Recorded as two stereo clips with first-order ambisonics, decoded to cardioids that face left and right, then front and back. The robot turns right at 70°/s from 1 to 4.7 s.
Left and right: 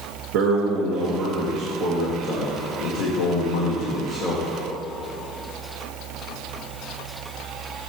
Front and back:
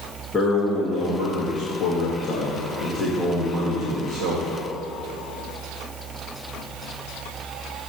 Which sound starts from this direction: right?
A man speaking, at 0.3 s.